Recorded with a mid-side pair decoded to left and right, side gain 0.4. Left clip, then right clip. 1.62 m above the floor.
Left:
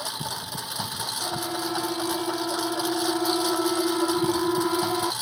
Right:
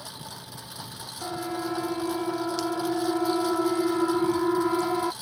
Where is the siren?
5° right.